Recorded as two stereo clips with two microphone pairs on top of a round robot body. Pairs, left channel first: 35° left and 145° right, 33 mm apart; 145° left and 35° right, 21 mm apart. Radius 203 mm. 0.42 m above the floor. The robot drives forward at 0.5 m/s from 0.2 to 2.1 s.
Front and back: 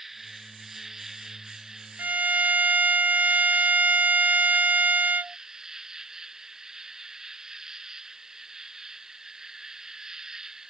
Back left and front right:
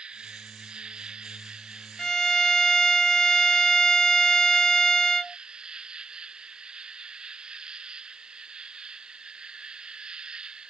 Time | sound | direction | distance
0.0 | an insect | 65° right | ?
2.0 | a violin | 175° right | ?